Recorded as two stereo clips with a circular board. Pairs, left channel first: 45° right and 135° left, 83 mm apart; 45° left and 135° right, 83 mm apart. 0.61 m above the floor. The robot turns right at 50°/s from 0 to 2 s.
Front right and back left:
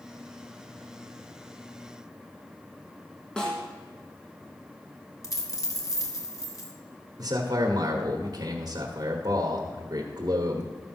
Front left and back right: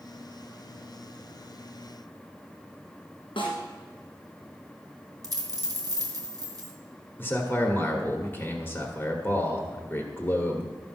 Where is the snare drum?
35° left, 3.5 m.